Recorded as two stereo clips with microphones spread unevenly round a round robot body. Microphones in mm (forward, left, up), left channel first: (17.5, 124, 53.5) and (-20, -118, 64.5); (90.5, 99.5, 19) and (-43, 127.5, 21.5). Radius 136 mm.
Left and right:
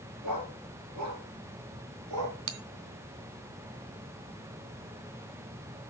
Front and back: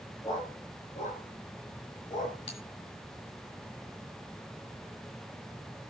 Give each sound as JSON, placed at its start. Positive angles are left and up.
{"t": 0.2, "sound": "a dog barking", "azimuth_deg": -85, "distance_m": 4.0}
{"t": 2.5, "sound": "a bell", "azimuth_deg": -85, "distance_m": 1.2}